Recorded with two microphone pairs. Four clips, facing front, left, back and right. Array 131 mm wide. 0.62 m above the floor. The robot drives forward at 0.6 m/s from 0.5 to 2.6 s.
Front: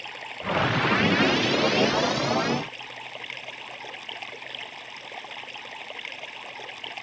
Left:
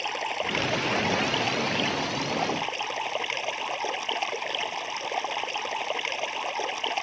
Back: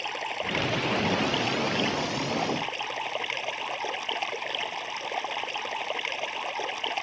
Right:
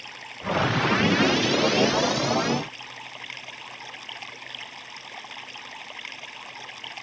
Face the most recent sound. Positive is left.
turn(degrees=110)